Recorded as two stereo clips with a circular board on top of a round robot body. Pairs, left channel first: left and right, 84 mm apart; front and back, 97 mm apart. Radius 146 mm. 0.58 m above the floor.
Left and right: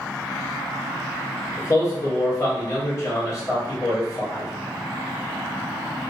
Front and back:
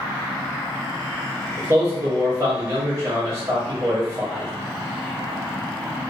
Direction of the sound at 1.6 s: 125° left.